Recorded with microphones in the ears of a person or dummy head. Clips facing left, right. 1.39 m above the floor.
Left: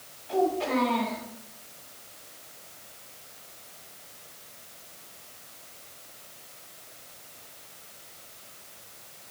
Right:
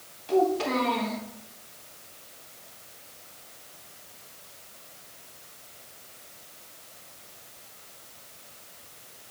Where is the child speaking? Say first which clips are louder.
Right 2 dB; 80° right, 3.5 m.